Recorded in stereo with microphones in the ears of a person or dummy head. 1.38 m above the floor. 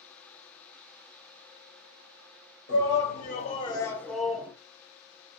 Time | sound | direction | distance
2.7 | a shout | 60° left (ahead or behind) | 1.0 m